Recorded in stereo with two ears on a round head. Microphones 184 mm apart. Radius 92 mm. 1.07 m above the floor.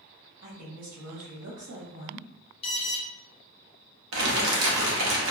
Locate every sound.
0.4 s a woman speaking: 65° right (ahead or behind), 2.0 m
2.6 s an alarm: 25° left (ahead or behind), 0.6 m
4.1 s crumpling: 65° right (ahead or behind), 0.8 m